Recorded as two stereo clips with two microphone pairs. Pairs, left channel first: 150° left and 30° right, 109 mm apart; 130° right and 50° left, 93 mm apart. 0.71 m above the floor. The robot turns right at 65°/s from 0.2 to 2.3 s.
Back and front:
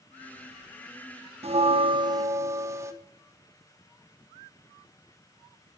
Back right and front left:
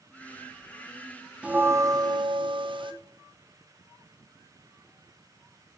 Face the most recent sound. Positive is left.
turn(degrees=30)